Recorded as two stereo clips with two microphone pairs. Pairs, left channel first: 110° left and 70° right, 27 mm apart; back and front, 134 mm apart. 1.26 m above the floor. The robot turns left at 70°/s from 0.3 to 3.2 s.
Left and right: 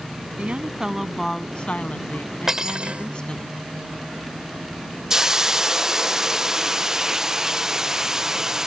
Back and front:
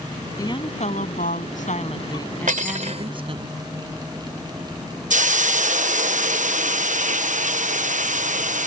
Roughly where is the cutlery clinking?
Ahead.